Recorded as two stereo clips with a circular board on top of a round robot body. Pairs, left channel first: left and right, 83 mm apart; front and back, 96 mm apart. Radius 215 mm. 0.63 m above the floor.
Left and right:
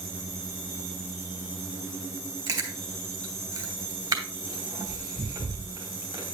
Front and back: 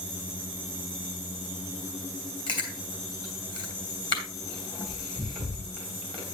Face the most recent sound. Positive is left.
turn(degrees=-40)